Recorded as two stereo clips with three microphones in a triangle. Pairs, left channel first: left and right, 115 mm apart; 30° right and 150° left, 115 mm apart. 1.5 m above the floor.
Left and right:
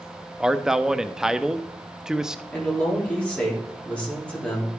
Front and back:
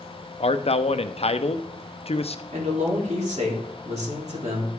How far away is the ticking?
I don't hear ticking.